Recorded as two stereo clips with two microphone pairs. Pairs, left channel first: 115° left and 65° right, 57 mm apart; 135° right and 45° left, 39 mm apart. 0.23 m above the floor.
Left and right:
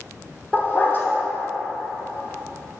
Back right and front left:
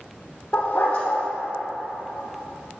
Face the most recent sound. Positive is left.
turn(degrees=175)